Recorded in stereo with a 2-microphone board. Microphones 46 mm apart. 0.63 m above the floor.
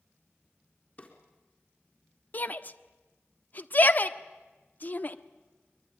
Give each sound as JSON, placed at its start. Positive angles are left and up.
{"t": 1.0, "sound": "a drawer", "side_deg": 35, "distance_m": 4.0}
{"t": 2.3, "sound": "a shout", "side_deg": 40, "distance_m": 1.2}